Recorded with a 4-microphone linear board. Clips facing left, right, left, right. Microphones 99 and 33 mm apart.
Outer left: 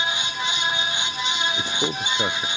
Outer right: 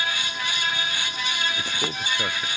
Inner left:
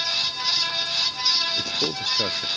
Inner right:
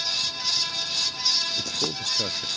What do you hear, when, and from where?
1.6 s a man speaking: 20° left (ahead or behind)